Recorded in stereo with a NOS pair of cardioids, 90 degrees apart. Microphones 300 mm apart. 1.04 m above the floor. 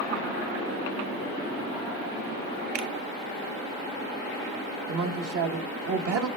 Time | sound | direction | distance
2.8 | a finger snap | 60° right | 0.8 m
4.9 | a woman speaking | 50° right | 1.0 m